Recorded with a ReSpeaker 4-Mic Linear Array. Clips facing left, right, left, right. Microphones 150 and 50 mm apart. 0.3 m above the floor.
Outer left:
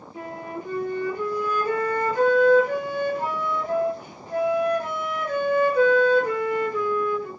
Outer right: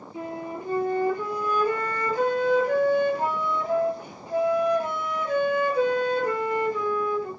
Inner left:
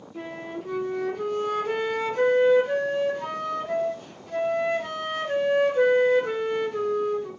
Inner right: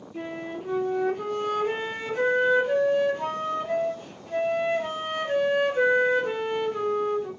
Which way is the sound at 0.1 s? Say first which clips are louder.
Outer right 1 dB, inner right 1 dB; 15° right (ahead or behind).